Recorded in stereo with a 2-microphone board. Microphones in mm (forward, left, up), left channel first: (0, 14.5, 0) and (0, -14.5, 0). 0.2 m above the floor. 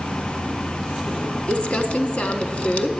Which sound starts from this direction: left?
Crumpling, at 1.5 s.